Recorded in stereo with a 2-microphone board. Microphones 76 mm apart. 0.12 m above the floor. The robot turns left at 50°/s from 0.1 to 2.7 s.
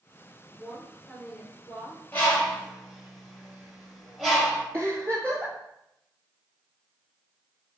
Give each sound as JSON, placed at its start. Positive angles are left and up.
{"t": 0.6, "sound": "a woman speaking", "azimuth_deg": -170, "distance_m": 1.4}
{"t": 2.1, "sound": "a bird", "side_deg": 30, "distance_m": 1.2}
{"t": 4.7, "sound": "a giggle", "side_deg": -30, "distance_m": 1.2}